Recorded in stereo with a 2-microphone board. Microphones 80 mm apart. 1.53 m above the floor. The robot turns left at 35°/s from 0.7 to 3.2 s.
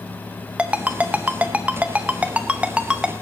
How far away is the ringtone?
About 0.8 m.